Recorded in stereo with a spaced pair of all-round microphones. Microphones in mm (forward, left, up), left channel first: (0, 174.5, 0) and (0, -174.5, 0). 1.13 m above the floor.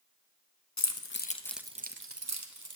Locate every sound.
0.8 s keys jangling: 50° left (ahead or behind), 0.8 m; by 2.8 s 60° right (ahead or behind), 1.1 m